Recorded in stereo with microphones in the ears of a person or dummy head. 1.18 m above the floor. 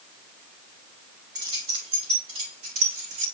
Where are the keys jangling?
20° right (ahead or behind), 2.5 m; by 3.2 s 45° right (ahead or behind), 4 m.